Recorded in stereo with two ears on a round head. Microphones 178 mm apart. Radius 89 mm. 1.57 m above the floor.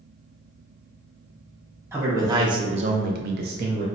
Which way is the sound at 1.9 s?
15° right (ahead or behind).